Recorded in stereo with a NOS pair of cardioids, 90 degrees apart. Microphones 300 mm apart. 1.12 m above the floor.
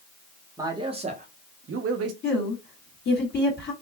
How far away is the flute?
No flute in this recording.